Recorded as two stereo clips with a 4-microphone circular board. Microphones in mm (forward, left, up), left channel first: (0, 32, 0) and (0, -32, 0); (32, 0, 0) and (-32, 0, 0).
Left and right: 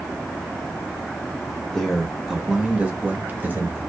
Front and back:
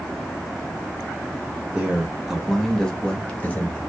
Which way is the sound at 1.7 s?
160° left.